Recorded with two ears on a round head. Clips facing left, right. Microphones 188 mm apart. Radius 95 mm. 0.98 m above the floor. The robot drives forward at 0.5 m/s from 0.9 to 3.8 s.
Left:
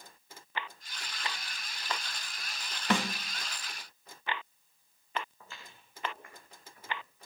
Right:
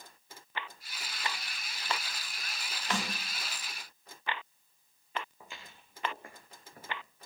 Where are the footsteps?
10° right (ahead or behind), 4 m; by 7.0 s 40° right (ahead or behind), 4 m.